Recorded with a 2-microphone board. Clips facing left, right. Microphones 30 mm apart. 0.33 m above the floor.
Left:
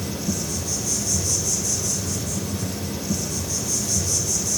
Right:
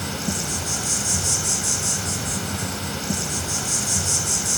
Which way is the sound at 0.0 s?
75° right (ahead or behind).